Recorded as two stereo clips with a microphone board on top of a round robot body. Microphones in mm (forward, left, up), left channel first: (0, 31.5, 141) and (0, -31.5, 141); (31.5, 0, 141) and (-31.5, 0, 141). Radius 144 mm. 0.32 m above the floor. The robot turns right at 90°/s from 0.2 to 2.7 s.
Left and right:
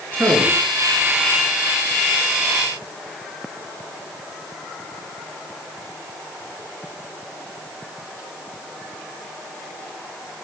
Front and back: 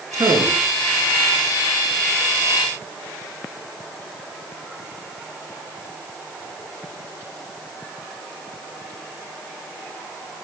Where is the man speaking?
150° right, 6.5 m; by 0.7 s 110° right, 6.5 m.